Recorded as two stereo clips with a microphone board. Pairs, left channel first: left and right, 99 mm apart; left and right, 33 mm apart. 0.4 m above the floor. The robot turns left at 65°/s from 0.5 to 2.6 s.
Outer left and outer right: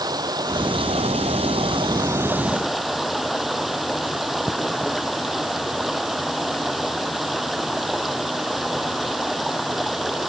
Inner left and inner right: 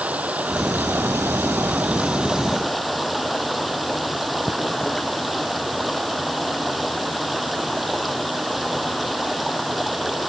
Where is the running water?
45° right; by 10.3 s straight behind.